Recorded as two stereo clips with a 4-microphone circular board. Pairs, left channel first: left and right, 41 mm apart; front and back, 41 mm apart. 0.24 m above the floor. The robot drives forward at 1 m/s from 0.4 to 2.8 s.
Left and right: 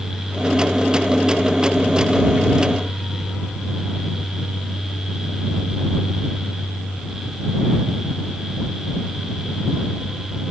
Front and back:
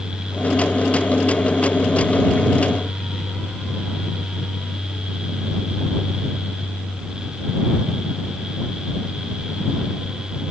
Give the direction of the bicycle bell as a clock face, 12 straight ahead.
I don't hear a bicycle bell.